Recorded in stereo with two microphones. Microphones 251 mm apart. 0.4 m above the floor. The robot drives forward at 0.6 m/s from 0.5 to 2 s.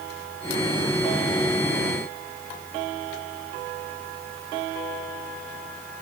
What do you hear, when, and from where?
Only background noise.